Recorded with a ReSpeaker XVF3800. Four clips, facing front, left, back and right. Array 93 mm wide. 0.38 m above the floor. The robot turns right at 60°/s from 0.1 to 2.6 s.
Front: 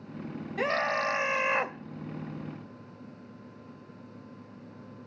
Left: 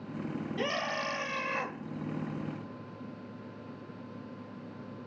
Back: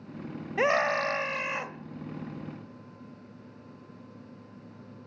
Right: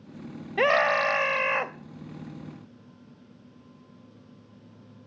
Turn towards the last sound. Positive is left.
turn(degrees=5)